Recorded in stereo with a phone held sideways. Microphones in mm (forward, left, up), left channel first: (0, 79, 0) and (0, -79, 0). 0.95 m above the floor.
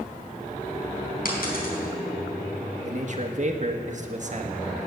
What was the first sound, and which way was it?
A dropped coin, 70° left (ahead or behind).